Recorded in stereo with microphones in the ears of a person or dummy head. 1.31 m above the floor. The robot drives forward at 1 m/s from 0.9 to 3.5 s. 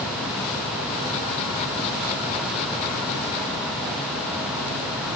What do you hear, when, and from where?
Only background noise.